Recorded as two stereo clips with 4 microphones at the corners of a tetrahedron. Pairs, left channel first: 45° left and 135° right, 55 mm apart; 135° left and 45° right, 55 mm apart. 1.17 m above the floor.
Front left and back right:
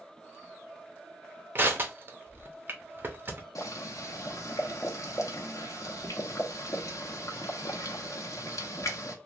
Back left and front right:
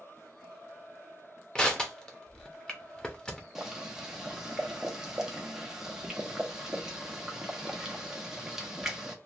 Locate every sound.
1.6 s crushing: 155° right, 0.6 m
3.5 s boiling: 35° left, 0.7 m